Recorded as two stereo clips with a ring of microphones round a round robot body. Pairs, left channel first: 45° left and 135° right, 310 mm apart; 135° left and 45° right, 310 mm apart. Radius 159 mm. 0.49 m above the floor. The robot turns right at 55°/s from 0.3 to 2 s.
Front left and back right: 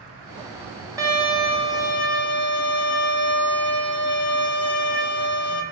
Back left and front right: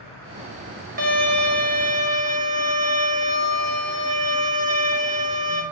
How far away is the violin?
About 0.8 m.